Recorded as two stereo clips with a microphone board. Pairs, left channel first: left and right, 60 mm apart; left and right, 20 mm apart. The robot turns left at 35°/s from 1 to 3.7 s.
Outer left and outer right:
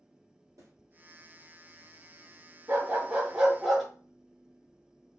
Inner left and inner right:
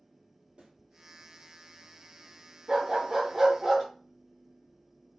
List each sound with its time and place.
0.6 s a snare drum: 60° right (ahead or behind), 2.5 m
2.7 s a dog barking: 140° right, 3 m; by 3.9 s 175° right, 3 m